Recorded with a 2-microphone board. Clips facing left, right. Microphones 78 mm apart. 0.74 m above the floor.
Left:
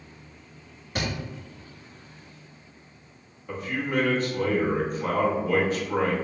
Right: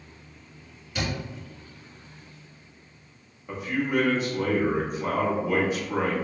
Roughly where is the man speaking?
Centre.